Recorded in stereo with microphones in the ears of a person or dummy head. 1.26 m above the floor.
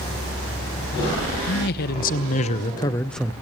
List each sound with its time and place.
1.5 s a man speaking: 60° left (ahead or behind), 1.1 m; by 3.3 s 5° right (ahead or behind), 0.5 m